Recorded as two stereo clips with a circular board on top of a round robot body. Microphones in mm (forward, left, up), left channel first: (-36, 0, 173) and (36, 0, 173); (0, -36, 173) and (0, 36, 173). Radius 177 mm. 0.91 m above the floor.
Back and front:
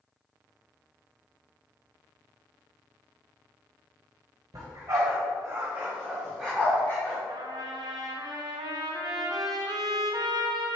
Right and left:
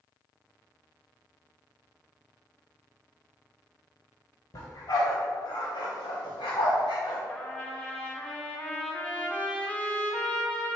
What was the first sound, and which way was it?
A dog barking, 45° right.